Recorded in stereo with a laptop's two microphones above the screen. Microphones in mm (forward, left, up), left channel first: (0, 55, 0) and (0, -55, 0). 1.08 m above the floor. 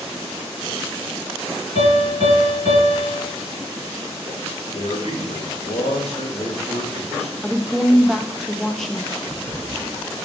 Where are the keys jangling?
20° left (ahead or behind), 3.5 m.